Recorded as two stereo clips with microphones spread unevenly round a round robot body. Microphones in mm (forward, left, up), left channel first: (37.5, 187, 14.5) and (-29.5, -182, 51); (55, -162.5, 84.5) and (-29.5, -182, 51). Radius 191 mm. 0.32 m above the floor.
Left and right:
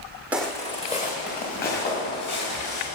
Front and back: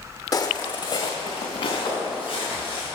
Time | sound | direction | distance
0.3 | footsteps | 15° right | 0.9 m